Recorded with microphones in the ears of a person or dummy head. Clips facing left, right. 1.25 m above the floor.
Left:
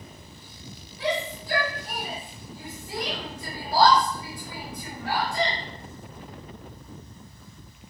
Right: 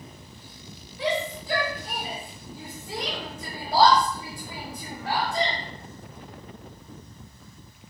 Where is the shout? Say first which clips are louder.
Right 1 dB; 60° right (ahead or behind), 1.1 m.